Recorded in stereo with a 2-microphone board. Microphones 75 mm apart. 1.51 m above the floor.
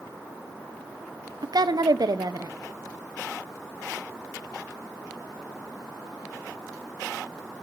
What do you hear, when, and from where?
1.4 s a woman speaking: 65° right (ahead or behind), 0.8 m